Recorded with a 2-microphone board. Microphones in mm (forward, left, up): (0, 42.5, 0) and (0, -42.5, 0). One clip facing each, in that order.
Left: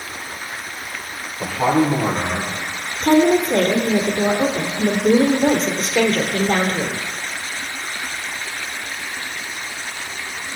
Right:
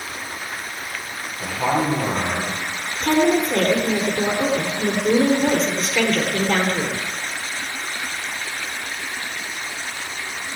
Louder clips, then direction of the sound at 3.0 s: Left 3 dB; 35° left (ahead or behind).